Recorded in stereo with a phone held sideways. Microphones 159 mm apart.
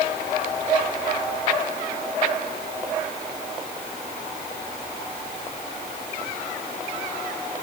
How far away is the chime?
I don't hear a chime.